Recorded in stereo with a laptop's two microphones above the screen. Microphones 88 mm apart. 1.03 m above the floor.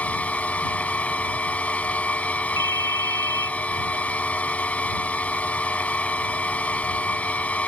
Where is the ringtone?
60° right (ahead or behind).